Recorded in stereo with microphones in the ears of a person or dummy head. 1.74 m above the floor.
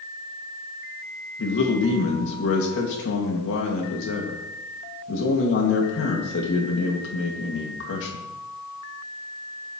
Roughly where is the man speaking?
Left.